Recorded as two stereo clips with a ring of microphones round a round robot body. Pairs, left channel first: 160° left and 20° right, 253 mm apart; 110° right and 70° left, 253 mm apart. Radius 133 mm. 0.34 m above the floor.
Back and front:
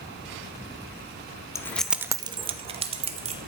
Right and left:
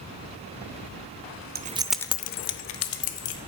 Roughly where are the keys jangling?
Left.